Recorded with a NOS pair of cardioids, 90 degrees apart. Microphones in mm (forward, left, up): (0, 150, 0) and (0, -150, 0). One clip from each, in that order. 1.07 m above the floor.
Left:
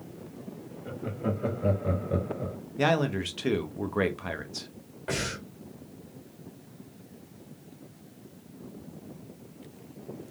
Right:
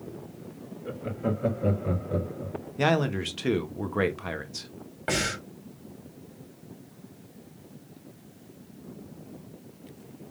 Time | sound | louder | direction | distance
0.8 | laughter | right 2 dB | 10° right | 2 m
2.8 | a man speaking | right 1 dB | 5° right | 0.9 m
5.1 | breathing | right 4 dB | 50° right | 2 m